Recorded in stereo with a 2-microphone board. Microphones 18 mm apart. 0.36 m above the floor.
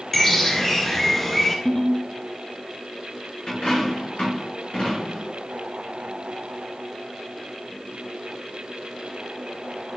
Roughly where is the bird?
Left.